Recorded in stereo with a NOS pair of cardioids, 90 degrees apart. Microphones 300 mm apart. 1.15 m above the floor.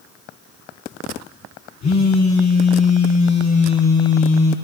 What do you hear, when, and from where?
1.8 s a phone buzzing: 60° left, 4 m